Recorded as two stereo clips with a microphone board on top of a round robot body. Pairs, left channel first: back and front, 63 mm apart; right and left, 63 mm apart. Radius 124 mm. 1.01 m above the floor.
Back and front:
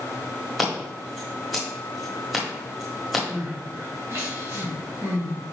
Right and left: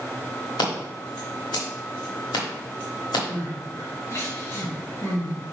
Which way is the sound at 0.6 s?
95° right.